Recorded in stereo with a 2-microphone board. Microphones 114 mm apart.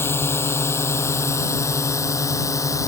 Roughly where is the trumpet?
I don't hear a trumpet.